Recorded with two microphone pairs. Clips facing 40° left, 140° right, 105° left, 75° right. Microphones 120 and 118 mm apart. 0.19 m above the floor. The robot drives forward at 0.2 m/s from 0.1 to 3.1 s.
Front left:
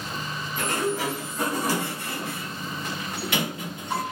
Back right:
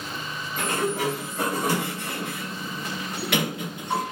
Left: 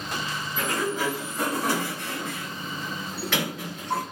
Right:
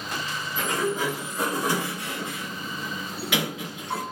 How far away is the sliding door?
About 1.8 m.